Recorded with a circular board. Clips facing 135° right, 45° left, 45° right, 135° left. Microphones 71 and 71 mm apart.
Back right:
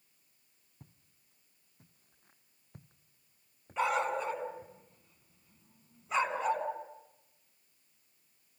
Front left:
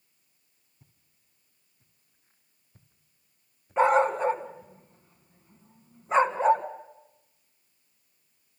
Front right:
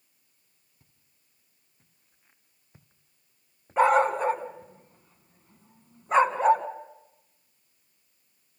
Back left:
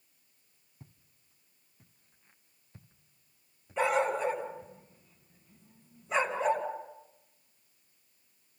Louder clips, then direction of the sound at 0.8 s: Back right 6 dB, back left 12 dB; 165° right.